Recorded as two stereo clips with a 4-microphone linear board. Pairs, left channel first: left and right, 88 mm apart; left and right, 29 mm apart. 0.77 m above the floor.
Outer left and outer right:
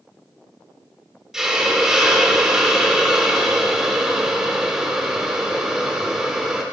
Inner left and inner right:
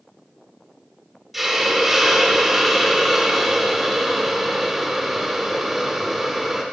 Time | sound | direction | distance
1.3 | a hiss | 5° right (ahead or behind) | 1.3 m